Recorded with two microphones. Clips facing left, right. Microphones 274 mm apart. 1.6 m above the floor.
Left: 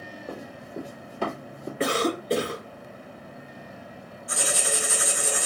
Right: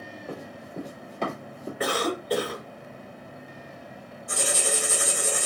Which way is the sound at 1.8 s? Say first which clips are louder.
Left 2 dB; 25° left (ahead or behind).